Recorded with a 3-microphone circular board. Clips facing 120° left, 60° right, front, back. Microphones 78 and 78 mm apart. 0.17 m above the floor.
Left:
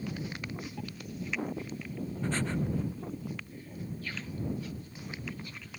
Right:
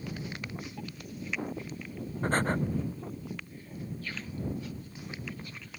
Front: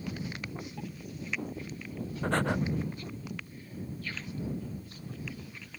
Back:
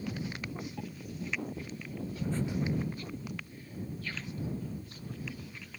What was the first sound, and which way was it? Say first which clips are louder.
Breathing: right 5 dB, front 6 dB; 15° right.